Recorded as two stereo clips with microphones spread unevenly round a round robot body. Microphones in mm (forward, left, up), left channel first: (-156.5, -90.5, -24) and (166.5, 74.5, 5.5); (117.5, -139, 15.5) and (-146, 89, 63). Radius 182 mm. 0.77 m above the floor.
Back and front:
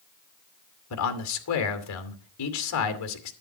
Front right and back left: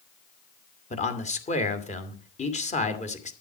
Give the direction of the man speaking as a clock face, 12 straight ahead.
4 o'clock.